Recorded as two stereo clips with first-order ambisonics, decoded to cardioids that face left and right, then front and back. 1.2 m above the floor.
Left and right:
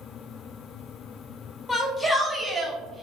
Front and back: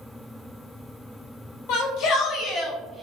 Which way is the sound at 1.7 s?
5° left.